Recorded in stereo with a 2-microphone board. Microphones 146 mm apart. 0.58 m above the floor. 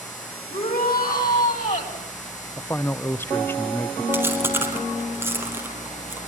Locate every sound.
0.5 s a shout: 75° left (ahead or behind), 5 m; by 2.0 s 65° left (ahead or behind), 5 m
2.6 s a man speaking: 15° left (ahead or behind), 0.7 m
4.1 s chewing: 15° right (ahead or behind), 3.5 m